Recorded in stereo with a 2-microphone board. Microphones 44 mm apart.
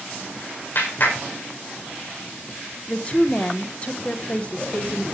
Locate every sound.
0.8 s a clap: 50° left (ahead or behind), 4 m
2.9 s a woman speaking: 25° left (ahead or behind), 1.1 m